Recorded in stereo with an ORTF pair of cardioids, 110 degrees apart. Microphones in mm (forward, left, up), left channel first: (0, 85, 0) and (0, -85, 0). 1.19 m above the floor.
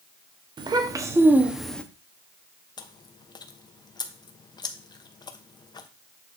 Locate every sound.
0.6 s a child speaking: 30° right, 1.2 m; by 1.8 s 10° left, 0.9 m
2.8 s chewing: 25° left, 0.9 m